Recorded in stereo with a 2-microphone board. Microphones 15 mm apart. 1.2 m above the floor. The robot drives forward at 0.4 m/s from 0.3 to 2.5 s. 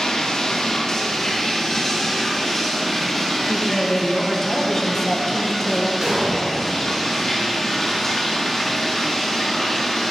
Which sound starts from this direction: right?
An explosion, at 6.0 s.